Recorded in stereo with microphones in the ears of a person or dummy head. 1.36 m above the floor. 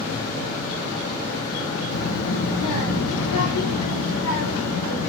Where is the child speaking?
55° left (ahead or behind), 2.5 m; by 5.1 s 85° left, 5 m.